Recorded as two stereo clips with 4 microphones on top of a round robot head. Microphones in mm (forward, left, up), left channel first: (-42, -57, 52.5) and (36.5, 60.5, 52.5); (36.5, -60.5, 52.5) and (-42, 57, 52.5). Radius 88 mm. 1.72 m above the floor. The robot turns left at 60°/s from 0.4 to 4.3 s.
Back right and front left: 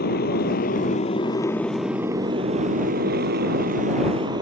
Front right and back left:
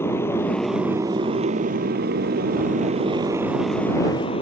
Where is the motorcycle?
130° right; by 4.4 s 5° right.